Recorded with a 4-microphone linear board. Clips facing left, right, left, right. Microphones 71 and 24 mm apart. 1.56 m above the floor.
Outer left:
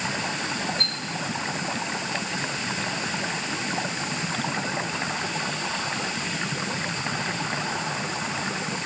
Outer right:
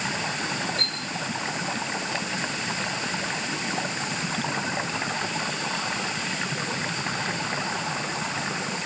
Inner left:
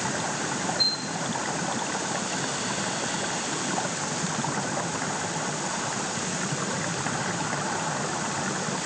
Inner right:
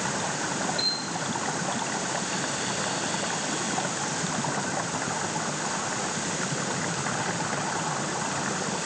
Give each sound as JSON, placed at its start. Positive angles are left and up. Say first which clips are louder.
{"t": 0.8, "sound": "a chime", "louder": "outer left 1 dB, inner left 4 dB", "side_deg": -75, "distance_m": 5.5}